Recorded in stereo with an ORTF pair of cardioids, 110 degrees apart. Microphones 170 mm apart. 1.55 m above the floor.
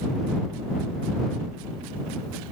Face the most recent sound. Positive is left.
No sound to turn to.